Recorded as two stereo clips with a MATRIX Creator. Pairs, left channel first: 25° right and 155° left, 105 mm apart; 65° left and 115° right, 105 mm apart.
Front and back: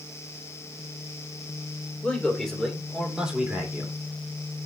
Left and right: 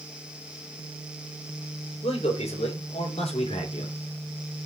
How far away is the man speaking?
About 3.5 m.